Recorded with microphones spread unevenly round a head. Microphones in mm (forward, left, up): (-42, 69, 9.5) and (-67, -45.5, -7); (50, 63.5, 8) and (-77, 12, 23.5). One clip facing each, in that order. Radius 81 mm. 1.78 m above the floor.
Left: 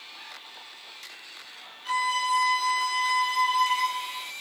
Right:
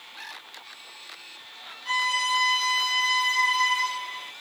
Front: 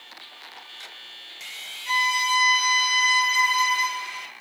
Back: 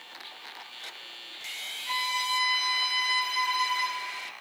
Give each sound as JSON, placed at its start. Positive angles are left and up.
{"t": 1.9, "sound": "a violin", "azimuth_deg": 10, "distance_m": 1.5}